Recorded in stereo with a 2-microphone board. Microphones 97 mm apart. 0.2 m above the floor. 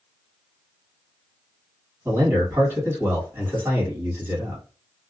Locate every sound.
2.0 s a man speaking: 20° right (ahead or behind), 1.7 m